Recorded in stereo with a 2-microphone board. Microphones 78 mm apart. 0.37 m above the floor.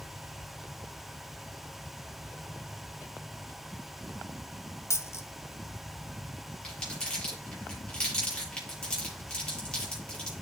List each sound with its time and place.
4.9 s a dropped coin: 35° left (ahead or behind), 0.8 m
6.6 s crumpling: 15° left (ahead or behind), 7 m